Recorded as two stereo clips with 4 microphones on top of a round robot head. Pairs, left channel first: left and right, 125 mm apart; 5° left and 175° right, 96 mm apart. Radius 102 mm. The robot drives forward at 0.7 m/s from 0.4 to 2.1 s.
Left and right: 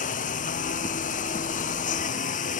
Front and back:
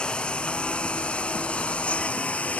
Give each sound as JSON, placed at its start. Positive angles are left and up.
{"t": 0.0, "sound": "a lawn mower", "azimuth_deg": 85}